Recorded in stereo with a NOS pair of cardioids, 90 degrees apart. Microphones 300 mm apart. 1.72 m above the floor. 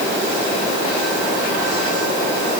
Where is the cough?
No cough in this recording.